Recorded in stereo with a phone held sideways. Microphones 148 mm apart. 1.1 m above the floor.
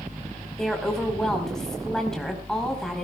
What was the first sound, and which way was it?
A woman speaking, 5° left (ahead or behind).